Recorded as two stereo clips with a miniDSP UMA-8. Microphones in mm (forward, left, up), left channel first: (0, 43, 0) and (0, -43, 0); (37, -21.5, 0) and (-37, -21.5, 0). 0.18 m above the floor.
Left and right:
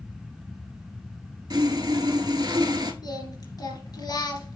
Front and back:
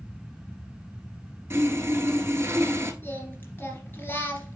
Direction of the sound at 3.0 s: 60° left.